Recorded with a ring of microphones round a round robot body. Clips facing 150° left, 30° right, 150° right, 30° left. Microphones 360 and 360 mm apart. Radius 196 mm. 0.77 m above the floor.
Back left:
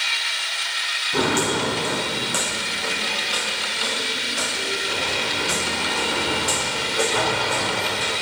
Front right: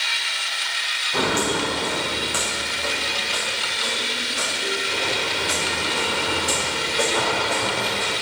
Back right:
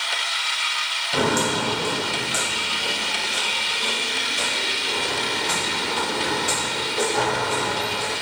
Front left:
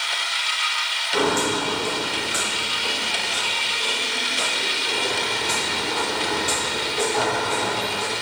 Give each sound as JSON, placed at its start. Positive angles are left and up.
{"t": 1.1, "sound": "footsteps", "azimuth_deg": -150, "distance_m": 1.6}